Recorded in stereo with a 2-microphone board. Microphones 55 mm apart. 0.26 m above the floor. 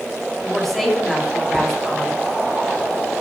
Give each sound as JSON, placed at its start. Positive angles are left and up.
{"t": 0.4, "sound": "a woman speaking", "side_deg": 5, "distance_m": 1.9}